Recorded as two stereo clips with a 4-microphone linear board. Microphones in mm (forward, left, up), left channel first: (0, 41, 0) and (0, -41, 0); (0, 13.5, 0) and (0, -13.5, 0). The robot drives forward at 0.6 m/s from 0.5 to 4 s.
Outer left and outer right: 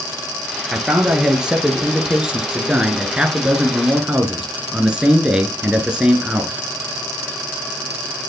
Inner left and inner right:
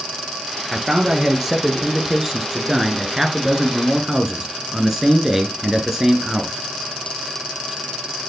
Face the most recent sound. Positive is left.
turn(degrees=-10)  # may be behind; listen again after turning